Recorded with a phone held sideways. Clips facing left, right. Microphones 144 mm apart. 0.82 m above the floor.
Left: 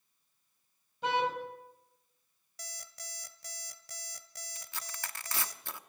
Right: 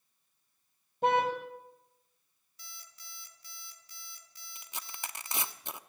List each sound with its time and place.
1.0 s a car horn: 50° right (ahead or behind), 2.5 m
2.6 s an alarm clock: 75° left (ahead or behind), 1.5 m
4.5 s tearing paper: 20° right (ahead or behind), 0.8 m